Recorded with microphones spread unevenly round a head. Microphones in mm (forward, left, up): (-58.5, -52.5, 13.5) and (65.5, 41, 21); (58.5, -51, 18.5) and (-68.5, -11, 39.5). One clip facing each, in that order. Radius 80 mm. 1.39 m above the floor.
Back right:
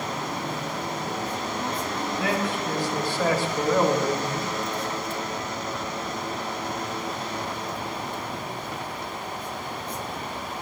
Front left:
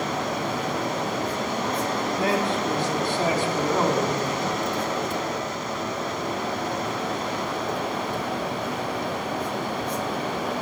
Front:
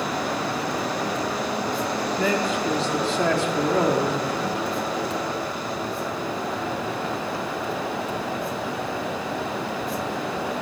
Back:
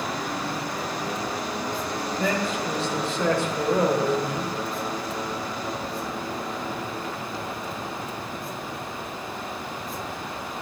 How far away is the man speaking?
About 3 m.